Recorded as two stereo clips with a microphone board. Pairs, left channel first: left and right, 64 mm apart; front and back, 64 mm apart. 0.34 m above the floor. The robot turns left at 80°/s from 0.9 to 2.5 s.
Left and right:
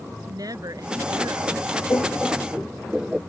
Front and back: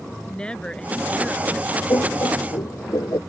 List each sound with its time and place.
0.3 s a woman speaking: 75° right; by 1.8 s 145° right
1.9 s laughter: 40° left; by 3.2 s 10° right